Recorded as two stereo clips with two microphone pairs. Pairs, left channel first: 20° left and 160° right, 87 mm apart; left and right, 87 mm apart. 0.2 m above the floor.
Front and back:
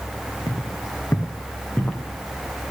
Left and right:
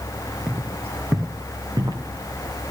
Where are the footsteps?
20° right, 1.6 m; by 2.0 s 60° right, 1.6 m.